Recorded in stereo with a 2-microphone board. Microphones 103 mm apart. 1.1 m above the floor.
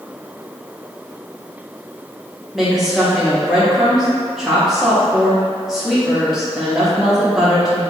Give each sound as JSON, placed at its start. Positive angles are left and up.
{"t": 2.5, "sound": "a woman speaking", "side_deg": -5, "distance_m": 0.8}